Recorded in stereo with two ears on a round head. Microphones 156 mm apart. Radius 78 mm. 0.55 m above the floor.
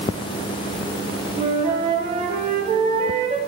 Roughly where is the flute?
Right.